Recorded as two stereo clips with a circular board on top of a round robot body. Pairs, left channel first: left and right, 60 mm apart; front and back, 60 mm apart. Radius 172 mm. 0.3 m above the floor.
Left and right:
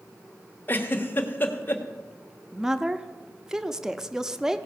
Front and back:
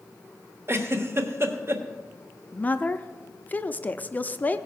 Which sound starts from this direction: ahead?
A woman speaking, at 2.5 s.